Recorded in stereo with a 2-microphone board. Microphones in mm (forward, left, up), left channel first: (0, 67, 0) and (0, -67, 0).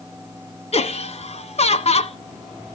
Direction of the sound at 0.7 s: 50° left (ahead or behind).